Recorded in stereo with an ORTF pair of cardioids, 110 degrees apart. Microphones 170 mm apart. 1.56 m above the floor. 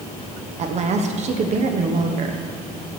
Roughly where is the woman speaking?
Ahead right.